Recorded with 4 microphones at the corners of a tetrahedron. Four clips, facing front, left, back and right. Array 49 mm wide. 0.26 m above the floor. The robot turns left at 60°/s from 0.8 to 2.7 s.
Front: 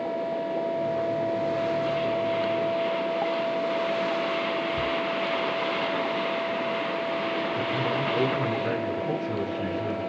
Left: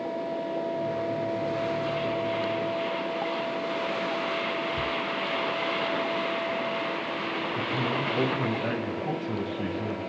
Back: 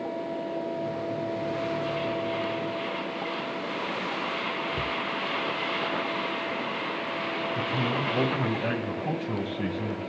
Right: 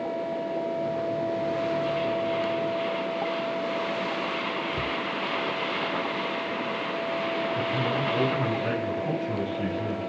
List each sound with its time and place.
4.7 s a cupboard door: 145° right, 0.6 m
7.5 s a man speaking: straight behind, 7.5 m